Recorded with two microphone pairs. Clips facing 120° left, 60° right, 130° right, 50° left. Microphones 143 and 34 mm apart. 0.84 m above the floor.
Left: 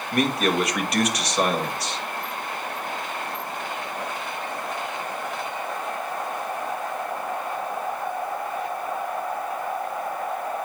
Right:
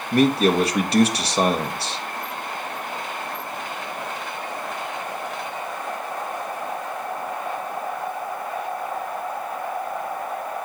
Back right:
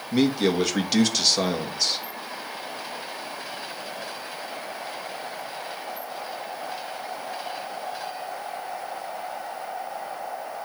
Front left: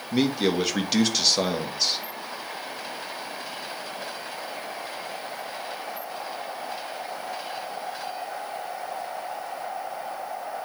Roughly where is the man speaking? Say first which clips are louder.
Right 5 dB, back right 2 dB; ahead right.